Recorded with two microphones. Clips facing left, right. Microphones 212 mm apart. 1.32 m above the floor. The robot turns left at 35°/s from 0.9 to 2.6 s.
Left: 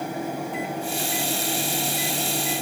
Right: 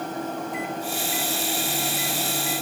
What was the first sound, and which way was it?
Only background noise.